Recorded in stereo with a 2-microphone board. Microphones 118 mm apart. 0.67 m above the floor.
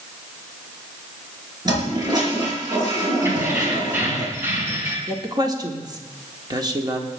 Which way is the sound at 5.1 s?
35° right (ahead or behind).